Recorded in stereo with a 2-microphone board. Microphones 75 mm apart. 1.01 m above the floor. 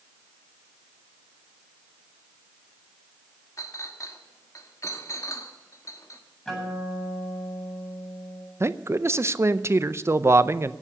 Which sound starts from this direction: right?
A man speaking, at 8.6 s.